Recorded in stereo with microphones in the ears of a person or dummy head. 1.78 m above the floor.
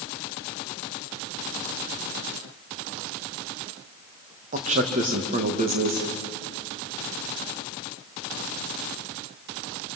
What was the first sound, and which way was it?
A man speaking, 40° right (ahead or behind).